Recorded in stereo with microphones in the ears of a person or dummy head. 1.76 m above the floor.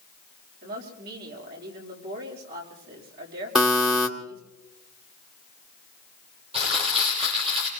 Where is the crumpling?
30° right (ahead or behind), 8 m.